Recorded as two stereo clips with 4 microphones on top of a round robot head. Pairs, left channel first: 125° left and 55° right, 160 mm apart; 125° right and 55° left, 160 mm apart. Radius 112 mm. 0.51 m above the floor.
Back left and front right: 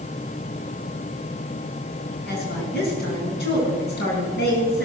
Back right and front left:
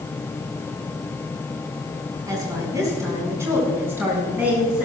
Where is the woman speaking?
125° left, 6 m; by 4.9 s 135° left, 5.5 m.